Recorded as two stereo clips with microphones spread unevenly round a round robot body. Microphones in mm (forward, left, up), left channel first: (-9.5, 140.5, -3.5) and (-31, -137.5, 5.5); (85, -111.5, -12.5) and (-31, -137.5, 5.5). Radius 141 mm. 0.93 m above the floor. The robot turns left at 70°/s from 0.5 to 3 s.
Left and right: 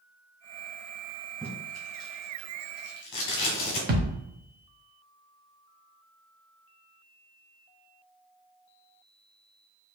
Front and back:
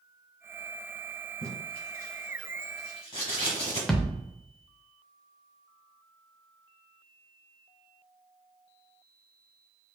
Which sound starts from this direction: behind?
Tape being pulled, at 1.4 s.